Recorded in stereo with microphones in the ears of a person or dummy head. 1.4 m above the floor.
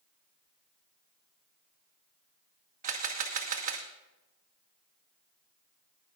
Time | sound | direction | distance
2.8 | a camera shutter | 40° right (ahead or behind) | 1.0 m